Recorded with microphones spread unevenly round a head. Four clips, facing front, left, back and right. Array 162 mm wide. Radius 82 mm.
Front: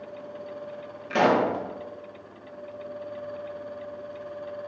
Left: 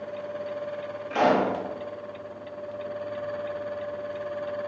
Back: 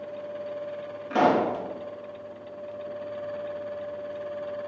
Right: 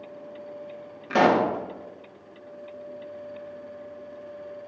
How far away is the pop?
About 2.5 m.